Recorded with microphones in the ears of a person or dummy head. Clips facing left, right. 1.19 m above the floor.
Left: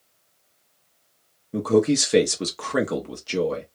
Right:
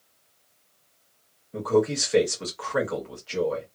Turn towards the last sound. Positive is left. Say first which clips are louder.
# left 4 dB
turn(degrees=50)  # may be behind; listen again after turning